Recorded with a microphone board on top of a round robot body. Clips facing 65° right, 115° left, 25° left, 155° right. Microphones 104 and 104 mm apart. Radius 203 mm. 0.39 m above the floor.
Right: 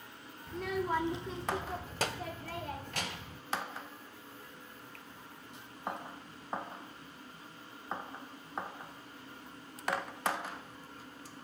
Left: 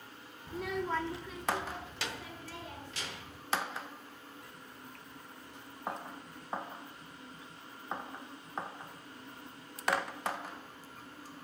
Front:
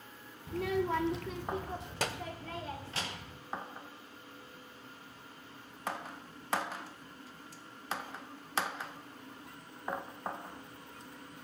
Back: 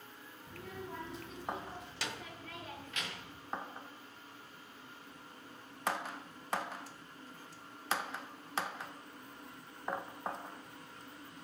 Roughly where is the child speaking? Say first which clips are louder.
Right 1 dB, front 14 dB; ahead left.